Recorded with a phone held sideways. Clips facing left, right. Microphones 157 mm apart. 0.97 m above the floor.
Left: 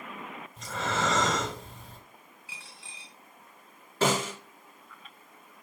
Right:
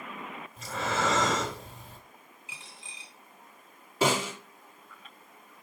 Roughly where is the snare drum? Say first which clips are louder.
Even; centre.